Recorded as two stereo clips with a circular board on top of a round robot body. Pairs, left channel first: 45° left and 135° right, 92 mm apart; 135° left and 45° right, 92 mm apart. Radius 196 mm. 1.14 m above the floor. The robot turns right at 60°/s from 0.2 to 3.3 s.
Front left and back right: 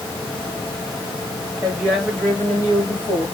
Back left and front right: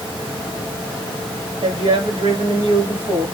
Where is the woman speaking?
70° right, 2 m; by 3.2 s 25° left, 2 m.